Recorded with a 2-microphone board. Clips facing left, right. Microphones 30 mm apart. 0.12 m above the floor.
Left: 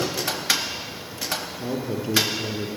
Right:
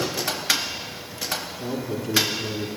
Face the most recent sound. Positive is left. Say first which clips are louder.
# left 1 dB
turn(degrees=30)  # may be behind; listen again after turning